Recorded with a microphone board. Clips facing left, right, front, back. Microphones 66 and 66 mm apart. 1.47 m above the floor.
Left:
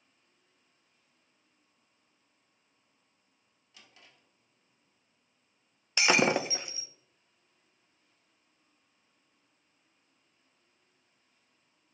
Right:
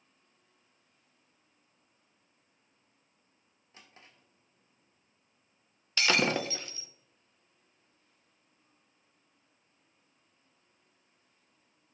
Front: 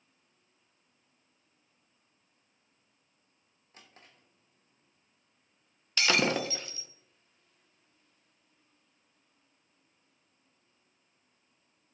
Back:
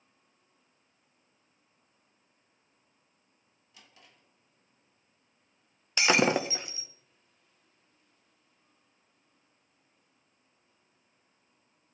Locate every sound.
3.7 s a drawer: 40° right, 1.6 m
6.0 s breaking glass: 140° left, 0.5 m